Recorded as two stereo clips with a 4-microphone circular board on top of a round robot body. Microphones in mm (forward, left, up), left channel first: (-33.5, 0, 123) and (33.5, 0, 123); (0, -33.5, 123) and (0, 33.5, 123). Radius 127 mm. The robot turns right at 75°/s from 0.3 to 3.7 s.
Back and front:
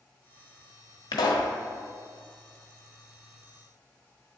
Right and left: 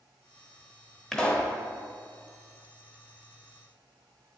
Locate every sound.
1.1 s a pop: 175° right, 0.9 m; by 1.5 s 145° right, 0.9 m